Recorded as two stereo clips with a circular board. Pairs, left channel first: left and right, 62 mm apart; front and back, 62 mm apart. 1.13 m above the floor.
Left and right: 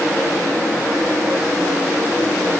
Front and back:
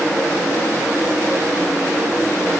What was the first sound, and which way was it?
Only background noise.